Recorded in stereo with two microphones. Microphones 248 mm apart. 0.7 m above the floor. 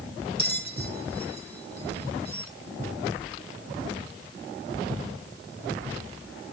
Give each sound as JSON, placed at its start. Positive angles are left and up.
{"t": 0.4, "sound": "a bell", "side_deg": -40, "distance_m": 1.9}